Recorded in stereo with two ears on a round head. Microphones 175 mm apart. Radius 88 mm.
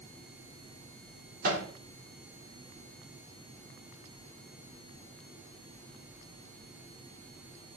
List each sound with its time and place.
1.4 s a microwave: 45° right (ahead or behind), 3 m